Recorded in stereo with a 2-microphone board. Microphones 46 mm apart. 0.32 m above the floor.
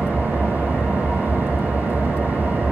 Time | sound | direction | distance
0.0 | an engine running | 35° right (ahead or behind) | 3.5 m